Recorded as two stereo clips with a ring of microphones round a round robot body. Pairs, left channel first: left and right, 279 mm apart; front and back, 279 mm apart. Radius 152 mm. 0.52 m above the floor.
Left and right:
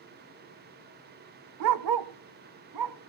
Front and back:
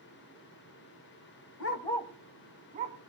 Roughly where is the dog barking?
Ahead right.